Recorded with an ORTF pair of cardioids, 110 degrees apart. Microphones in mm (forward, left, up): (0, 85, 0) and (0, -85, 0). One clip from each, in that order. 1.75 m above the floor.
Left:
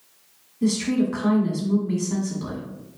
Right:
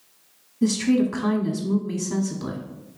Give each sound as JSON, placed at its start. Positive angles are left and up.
{"t": 0.6, "sound": "a woman speaking", "azimuth_deg": -25, "distance_m": 0.9}